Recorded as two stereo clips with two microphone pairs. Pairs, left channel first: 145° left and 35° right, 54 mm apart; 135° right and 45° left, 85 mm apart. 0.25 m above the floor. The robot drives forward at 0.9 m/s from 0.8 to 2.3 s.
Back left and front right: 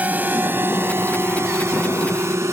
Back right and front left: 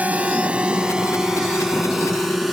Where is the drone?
15° right; by 2.5 s 45° right.